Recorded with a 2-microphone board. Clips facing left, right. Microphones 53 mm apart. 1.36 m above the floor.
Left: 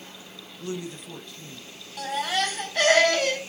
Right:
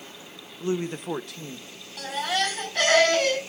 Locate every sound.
0.6 s a woman speaking: 25° right (ahead or behind), 0.9 m; by 1.9 s 85° right, 1.9 m
2.0 s a baby crying: 5° left (ahead or behind), 7 m